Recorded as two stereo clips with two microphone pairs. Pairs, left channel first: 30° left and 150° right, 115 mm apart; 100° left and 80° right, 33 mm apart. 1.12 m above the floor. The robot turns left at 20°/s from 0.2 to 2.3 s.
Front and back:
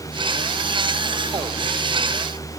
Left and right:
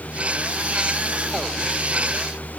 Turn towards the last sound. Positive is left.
No sound to turn to.